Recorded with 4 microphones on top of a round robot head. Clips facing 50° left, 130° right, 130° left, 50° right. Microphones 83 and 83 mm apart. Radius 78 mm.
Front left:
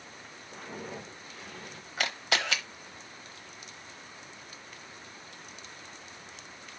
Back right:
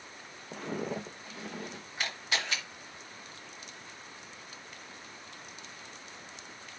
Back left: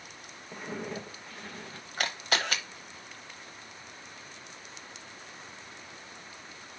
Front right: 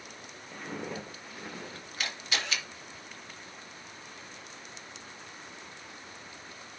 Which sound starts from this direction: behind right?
Footsteps, at 0.5 s.